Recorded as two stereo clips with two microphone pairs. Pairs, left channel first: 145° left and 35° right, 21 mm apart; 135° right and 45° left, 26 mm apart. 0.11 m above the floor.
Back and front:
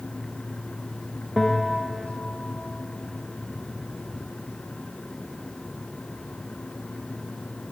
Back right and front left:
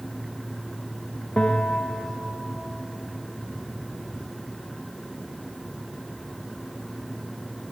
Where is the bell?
135° right, 0.8 m.